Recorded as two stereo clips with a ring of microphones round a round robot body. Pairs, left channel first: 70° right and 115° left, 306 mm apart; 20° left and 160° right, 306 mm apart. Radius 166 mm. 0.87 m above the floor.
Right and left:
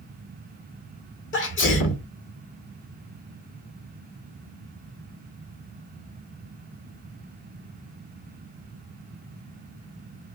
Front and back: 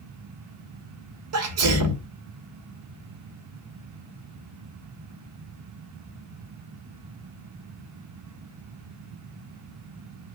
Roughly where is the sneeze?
Behind right.